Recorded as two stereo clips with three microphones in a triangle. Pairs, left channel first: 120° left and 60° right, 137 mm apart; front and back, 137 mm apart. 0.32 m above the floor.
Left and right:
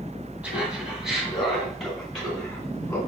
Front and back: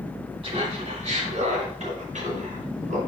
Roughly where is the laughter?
Behind right.